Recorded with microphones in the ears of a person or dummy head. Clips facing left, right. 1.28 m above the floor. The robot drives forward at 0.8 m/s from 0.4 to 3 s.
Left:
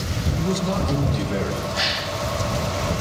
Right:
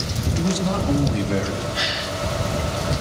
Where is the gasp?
60° right (ahead or behind), 5.5 m.